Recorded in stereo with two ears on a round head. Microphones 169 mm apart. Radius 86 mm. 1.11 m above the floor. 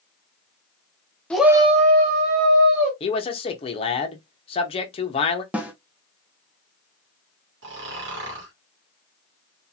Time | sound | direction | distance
1.3 | a shout | 5° left (ahead or behind) | 0.6 m
3.0 | a man speaking | 30° left (ahead or behind) | 0.7 m
5.5 | a snare drum | 5° right (ahead or behind) | 0.6 m
7.6 | snoring | 65° right (ahead or behind) | 1.1 m